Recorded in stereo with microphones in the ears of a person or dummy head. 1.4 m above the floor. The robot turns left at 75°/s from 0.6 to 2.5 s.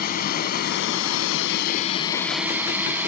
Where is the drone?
130° left; by 3.1 s 15° right.